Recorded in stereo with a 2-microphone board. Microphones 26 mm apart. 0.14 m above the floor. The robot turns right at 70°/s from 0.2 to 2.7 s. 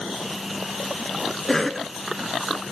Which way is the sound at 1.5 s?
15° left (ahead or behind).